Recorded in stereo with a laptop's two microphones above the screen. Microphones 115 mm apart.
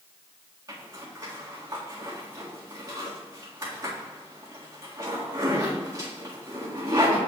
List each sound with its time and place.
0.7 s a zipper: 35° right (ahead or behind), 2 m